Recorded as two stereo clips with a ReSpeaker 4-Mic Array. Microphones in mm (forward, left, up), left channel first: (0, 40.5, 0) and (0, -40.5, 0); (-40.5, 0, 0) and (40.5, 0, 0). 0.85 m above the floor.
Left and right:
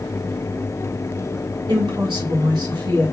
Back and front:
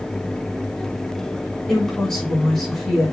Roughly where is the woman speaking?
Right.